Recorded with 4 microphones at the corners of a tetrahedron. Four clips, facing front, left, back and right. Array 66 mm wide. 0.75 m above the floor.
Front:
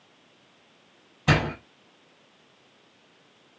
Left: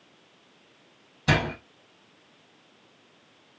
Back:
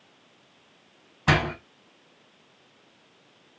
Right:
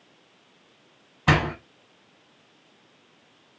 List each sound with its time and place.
1.3 s a door slam: 120° right, 1.4 m